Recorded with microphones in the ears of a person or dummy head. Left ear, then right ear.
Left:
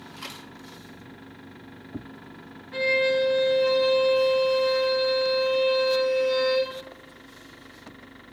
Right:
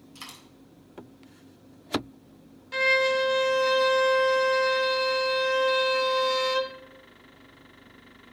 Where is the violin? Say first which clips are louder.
Even; 75° right (ahead or behind), 0.8 m.